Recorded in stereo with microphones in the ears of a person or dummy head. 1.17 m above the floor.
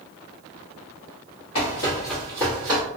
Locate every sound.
1.6 s running footsteps: 30° left (ahead or behind), 1.3 m; by 2.8 s 10° right (ahead or behind), 1.1 m